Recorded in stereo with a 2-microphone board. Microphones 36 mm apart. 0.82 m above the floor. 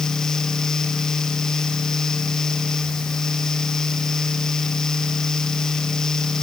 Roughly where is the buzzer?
No buzzer in this recording.